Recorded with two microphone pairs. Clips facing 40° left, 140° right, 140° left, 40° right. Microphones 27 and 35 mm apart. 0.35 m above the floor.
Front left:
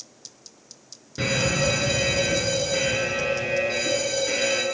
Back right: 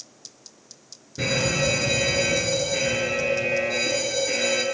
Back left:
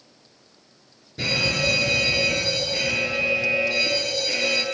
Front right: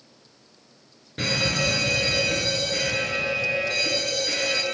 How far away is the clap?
No clap in this recording.